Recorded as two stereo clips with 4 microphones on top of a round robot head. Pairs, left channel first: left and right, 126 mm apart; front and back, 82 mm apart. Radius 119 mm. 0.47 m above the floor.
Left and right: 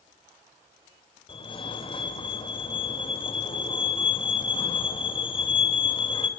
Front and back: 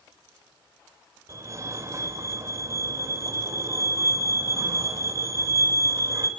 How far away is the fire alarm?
About 4 m.